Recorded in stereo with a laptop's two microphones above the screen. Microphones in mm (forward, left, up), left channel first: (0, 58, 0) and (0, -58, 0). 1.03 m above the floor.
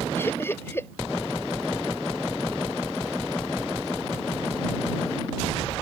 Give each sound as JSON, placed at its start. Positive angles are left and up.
{"t": 0.2, "sound": "laughter", "side_deg": 20}